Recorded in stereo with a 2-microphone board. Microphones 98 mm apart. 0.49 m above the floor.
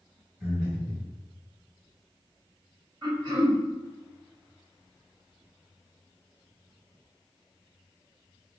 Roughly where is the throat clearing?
Right.